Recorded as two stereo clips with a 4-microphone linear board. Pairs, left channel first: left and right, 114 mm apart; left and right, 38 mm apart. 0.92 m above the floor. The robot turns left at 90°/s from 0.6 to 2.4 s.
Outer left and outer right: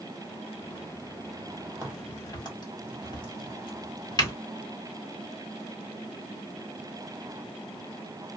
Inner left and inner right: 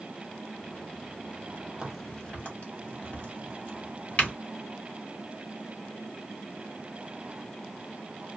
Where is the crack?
15° right (ahead or behind), 1.4 m; by 4.3 s 40° left (ahead or behind), 1.4 m.